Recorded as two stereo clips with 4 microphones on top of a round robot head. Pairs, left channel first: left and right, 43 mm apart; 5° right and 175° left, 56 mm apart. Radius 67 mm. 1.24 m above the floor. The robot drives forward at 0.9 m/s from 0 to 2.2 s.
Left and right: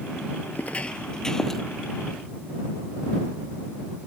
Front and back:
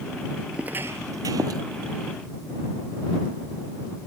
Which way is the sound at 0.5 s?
110° left.